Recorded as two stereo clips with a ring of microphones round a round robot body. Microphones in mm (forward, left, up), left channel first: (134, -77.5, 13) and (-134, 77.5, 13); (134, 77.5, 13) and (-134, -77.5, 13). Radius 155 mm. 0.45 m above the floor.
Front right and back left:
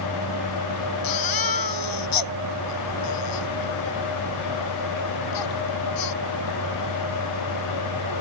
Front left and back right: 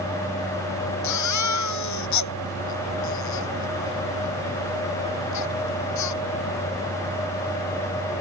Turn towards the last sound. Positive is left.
turn(degrees=-5)